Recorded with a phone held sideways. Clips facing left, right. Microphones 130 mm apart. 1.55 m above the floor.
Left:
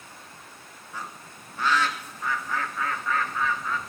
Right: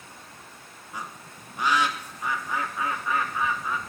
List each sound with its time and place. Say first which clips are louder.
0.9 s a bird: right 1 dB; 15° right (ahead or behind), 1.6 m